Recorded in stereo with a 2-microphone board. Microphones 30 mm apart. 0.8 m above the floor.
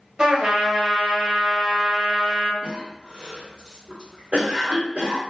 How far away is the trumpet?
About 1.4 m.